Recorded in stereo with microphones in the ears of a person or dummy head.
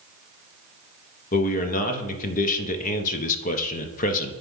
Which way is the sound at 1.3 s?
40° left (ahead or behind).